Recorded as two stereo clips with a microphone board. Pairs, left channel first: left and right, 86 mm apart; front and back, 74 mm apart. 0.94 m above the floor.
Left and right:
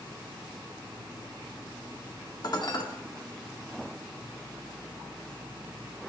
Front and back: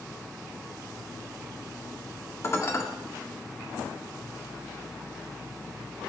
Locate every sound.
2.4 s dishes clattering: 55° left, 1.5 m